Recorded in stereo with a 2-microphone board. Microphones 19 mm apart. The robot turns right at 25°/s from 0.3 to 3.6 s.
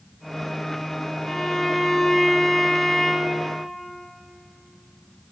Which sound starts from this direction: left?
A violin, at 1.3 s.